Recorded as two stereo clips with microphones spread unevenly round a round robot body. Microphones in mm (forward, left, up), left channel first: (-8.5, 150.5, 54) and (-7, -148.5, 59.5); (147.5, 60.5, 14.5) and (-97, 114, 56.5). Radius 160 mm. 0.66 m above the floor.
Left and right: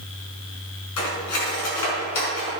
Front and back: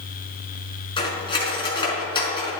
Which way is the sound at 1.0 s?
60° left.